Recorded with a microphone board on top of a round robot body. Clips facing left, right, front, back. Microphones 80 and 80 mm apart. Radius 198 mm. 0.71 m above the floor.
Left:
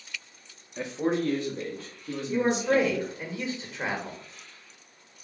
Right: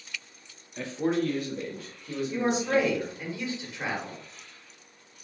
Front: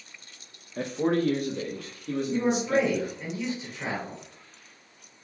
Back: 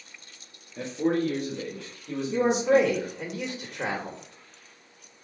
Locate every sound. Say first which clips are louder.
0.8 s a man speaking: even, even; 20° left, 0.7 m; by 3.1 s 40° left, 1.7 m
2.3 s a man speaking: left 2 dB, back 4 dB; 160° left, 1.0 m